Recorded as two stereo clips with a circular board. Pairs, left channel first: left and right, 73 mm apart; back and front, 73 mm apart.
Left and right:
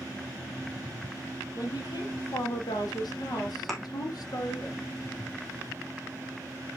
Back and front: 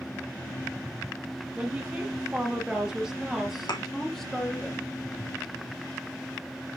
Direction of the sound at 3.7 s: 175° left.